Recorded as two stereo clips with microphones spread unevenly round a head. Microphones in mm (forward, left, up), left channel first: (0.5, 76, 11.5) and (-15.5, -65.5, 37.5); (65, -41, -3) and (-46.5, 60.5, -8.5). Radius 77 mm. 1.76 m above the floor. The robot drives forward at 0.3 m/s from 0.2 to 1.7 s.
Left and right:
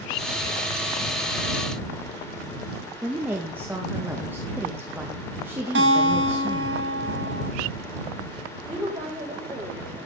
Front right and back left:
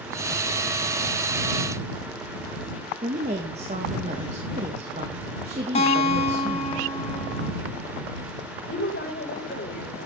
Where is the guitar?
95° right, 3 m.